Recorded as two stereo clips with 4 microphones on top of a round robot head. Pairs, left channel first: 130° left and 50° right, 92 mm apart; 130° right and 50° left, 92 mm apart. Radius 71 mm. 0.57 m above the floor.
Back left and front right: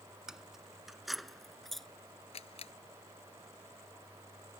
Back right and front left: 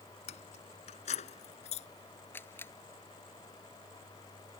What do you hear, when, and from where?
0.3 s keys jangling: 130° right; by 1.9 s 140° right
2.3 s a camera shutter: 155° left